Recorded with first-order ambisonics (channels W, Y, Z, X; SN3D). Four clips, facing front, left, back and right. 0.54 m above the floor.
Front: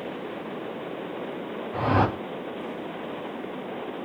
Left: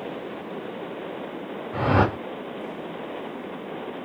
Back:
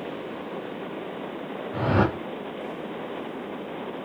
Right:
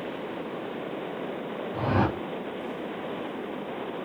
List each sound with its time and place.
1.7 s a whoosh: 95° left, 2 m